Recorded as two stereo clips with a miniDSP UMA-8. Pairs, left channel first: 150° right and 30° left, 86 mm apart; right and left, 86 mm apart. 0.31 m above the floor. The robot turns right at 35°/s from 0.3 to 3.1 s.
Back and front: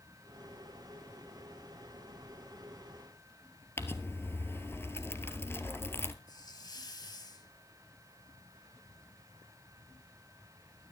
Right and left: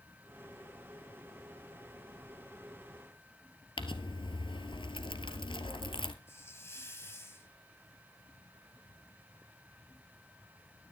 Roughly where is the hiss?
Behind right.